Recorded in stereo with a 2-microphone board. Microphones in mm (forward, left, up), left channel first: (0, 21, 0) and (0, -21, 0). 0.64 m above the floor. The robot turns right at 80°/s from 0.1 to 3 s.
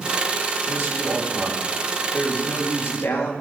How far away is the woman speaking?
About 4 m.